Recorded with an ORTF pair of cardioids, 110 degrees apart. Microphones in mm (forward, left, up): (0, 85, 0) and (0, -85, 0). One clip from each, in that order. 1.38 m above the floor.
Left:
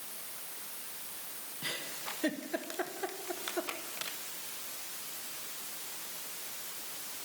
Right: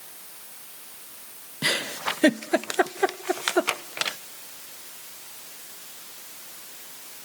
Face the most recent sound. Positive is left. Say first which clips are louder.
# right 14 dB
turn(degrees=-65)